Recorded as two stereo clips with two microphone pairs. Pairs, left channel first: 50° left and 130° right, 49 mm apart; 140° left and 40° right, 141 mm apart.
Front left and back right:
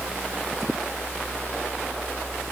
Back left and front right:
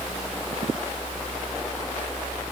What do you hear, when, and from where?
Only background noise.